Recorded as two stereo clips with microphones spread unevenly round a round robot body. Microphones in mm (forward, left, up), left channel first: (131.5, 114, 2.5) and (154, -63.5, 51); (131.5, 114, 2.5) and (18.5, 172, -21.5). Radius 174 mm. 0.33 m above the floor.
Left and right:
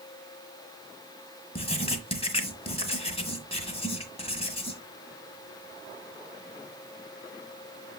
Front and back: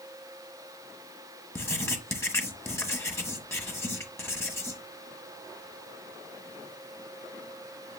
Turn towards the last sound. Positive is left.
turn(degrees=45)